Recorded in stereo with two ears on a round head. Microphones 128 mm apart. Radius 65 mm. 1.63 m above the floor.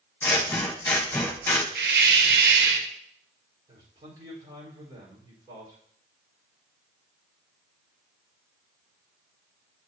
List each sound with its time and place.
0.2 s scissors: 15° left (ahead or behind), 1.0 m
1.8 s a hiss: 80° right, 0.8 m
3.7 s a man speaking: 30° right (ahead or behind), 4.5 m